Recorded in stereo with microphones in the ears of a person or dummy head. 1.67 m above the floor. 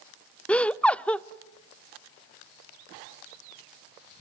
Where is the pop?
I don't hear a pop.